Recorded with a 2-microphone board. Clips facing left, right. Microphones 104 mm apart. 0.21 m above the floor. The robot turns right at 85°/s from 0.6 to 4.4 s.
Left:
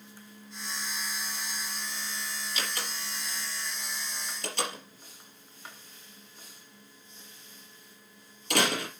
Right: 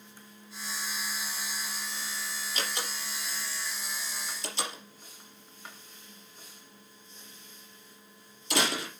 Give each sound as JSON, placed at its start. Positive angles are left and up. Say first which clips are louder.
{"t": 2.5, "sound": "a door slam", "louder": "right 2 dB", "side_deg": -40, "distance_m": 3.5}